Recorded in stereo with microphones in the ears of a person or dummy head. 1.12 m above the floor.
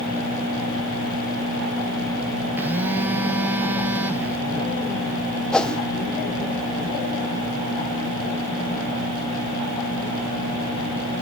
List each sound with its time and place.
2.6 s a phone buzzing: 10° right (ahead or behind), 0.6 m
5.5 s a whoosh: centre (ahead or behind), 0.8 m